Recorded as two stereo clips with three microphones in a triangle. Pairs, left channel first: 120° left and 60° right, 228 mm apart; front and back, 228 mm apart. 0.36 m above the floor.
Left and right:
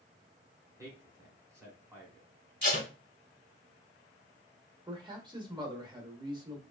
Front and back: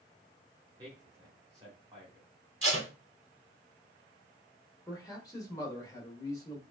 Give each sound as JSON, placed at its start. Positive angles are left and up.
{"t": 0.8, "sound": "a man speaking", "azimuth_deg": -125, "distance_m": 1.3}
{"t": 2.6, "sound": "tape being pulled", "azimuth_deg": 160, "distance_m": 1.2}
{"t": 4.9, "sound": "a man speaking", "azimuth_deg": -40, "distance_m": 0.8}